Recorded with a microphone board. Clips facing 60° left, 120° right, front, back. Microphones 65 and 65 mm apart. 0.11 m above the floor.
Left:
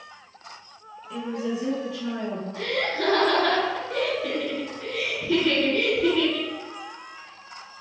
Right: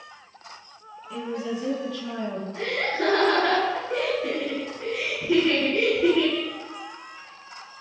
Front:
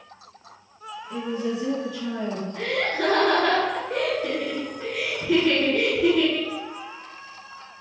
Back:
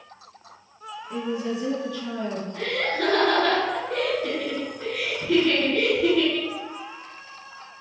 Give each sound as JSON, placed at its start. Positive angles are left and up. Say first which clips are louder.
{"t": 1.1, "sound": "a woman speaking", "louder": "left 1 dB, even", "azimuth_deg": 160, "distance_m": 1.1}
{"t": 2.5, "sound": "laughter", "louder": "right 1 dB, front 1 dB", "azimuth_deg": -75, "distance_m": 1.5}